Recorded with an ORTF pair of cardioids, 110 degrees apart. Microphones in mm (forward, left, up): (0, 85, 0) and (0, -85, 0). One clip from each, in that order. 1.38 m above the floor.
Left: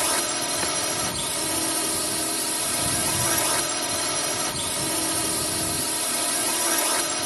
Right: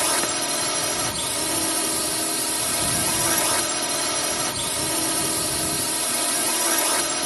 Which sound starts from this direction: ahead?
A drone, at 0.0 s.